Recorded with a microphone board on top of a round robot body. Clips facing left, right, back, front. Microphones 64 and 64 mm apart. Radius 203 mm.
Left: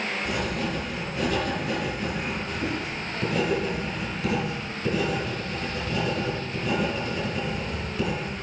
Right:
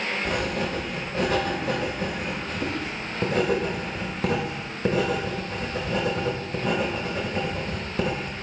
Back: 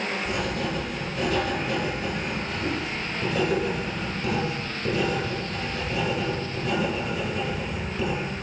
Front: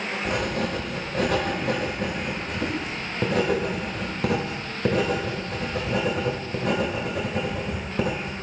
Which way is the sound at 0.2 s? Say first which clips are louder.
Right 2 dB, front 2 dB; 35° right.